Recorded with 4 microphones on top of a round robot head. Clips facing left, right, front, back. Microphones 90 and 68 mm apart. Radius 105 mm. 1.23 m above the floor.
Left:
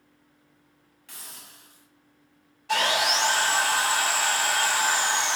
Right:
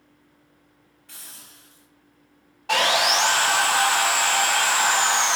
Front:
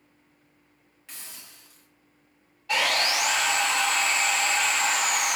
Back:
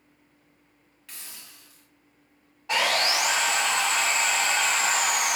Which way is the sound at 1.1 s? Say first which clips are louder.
Left 1 dB, even; 70° left.